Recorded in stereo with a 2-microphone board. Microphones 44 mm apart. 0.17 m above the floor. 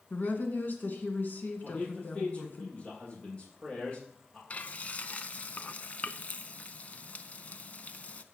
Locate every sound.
0.1 s a woman speaking: 40° left (ahead or behind), 2 m
1.6 s a man speaking: 20° left (ahead or behind), 6 m
4.5 s frying: 35° left (ahead or behind), 0.6 m